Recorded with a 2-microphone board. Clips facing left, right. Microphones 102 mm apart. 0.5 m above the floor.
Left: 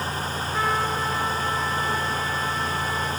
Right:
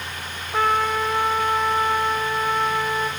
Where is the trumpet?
65° right (ahead or behind), 1.0 m.